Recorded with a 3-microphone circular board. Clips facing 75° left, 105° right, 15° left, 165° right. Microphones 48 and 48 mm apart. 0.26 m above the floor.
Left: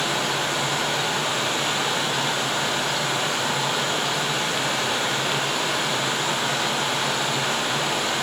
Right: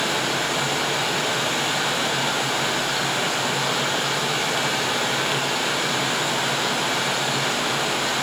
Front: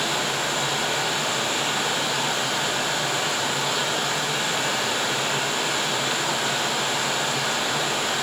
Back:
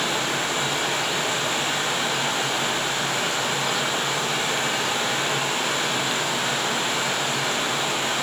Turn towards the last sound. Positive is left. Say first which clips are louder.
# right 1 dB, even
turn(degrees=-105)